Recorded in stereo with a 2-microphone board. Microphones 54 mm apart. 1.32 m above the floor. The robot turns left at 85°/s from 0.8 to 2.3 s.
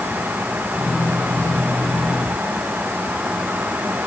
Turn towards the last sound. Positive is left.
No sound to turn to.